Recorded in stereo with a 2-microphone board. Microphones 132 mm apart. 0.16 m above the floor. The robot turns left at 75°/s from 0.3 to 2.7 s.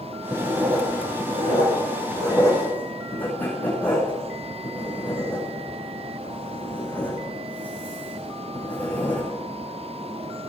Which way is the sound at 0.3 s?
15° right (ahead or behind).